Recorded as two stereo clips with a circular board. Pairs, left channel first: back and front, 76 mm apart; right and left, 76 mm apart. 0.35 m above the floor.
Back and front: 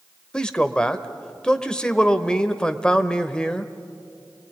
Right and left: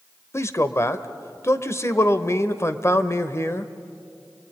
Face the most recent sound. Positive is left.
turn(degrees=-110)